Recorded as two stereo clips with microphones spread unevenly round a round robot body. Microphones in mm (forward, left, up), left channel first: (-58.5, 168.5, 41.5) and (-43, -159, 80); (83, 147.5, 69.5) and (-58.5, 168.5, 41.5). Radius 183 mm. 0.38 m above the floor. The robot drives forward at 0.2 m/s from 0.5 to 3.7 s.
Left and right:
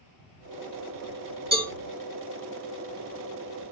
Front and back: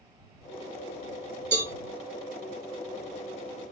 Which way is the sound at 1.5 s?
165° right.